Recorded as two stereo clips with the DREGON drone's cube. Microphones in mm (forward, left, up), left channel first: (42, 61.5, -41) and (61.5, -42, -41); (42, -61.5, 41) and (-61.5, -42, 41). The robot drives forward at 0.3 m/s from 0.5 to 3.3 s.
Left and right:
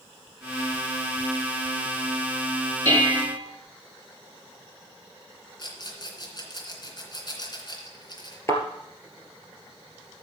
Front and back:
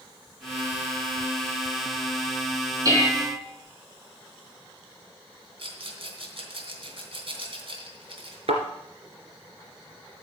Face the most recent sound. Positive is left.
turn(degrees=160)